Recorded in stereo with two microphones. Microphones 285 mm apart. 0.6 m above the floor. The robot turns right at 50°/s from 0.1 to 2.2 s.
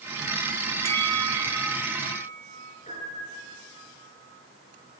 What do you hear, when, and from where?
0.8 s a bell: 105° right, 0.6 m; by 2.8 s 35° right, 0.6 m
2.9 s a piano: 25° left (ahead or behind), 9 m